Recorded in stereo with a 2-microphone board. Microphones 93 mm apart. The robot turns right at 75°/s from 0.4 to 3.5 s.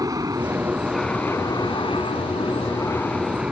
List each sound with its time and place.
0.0 s an aircraft: 40° right; by 3.5 s 165° right